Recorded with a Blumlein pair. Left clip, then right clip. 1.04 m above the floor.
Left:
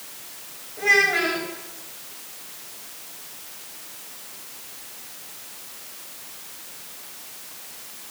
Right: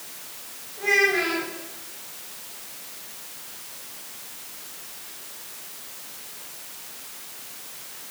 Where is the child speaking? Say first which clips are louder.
Left 2 dB; 30° left, 2 m.